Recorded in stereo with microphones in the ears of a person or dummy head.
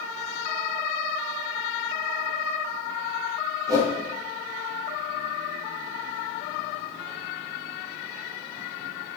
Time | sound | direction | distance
3.7 | a whoosh | 25° right (ahead or behind) | 3 m